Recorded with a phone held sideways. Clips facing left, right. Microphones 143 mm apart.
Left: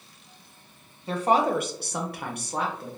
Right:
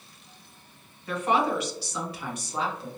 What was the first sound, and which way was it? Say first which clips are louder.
A woman speaking: left 3 dB; 30° left (ahead or behind).